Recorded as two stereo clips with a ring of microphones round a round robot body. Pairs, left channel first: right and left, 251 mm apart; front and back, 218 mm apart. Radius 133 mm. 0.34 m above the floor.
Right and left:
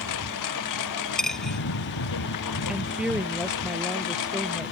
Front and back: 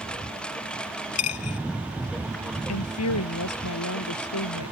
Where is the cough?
No cough in this recording.